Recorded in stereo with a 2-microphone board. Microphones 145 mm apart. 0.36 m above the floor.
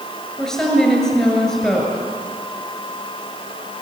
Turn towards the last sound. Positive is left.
turn(degrees=5)  # may be behind; listen again after turning